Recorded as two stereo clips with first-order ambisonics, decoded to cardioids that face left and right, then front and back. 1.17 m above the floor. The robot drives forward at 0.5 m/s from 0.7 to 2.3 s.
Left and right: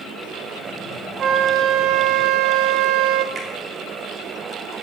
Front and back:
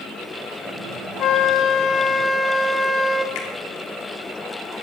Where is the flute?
40° right, 0.9 m; by 3.2 s 80° right, 0.6 m.